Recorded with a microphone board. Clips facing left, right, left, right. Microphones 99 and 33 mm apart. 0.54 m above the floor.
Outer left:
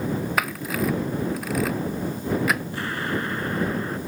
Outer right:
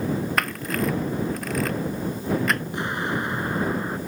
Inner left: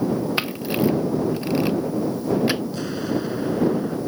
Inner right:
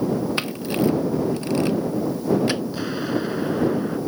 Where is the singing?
I don't hear singing.